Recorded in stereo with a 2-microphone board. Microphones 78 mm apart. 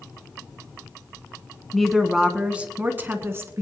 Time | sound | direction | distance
1.7 | a woman speaking | 5° left (ahead or behind) | 1.3 m